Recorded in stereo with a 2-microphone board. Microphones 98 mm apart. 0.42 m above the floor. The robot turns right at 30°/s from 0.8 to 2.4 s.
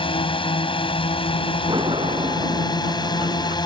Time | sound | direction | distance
0.0 | a drone | 80° left | ?
1.7 | a sliding door | 55° right (ahead or behind) | ?